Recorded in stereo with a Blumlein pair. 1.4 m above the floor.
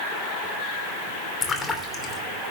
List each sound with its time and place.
1.4 s a splash: 15° left, 2.5 m